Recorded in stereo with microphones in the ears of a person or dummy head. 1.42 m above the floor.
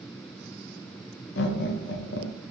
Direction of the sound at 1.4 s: 55° left (ahead or behind).